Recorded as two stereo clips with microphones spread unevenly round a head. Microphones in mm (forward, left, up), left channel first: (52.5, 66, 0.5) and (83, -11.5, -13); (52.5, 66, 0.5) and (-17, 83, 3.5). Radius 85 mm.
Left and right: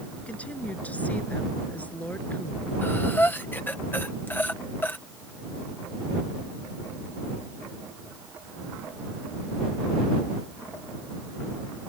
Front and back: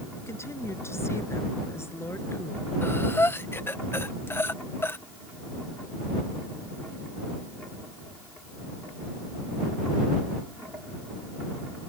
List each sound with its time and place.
0.2 s a woman speaking: 40° left
2.8 s breathing: 45° left